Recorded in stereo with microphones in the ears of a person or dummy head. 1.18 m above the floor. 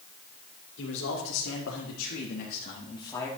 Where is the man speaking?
75° left (ahead or behind), 3 m; by 3.3 s 10° left (ahead or behind), 2 m.